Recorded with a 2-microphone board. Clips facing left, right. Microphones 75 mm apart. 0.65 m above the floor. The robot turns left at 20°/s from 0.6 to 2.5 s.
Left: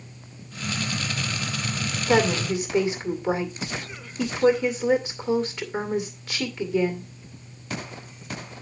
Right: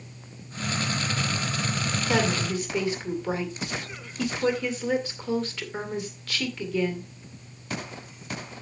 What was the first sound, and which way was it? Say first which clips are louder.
A woman speaking: left 5 dB; 25° left (ahead or behind).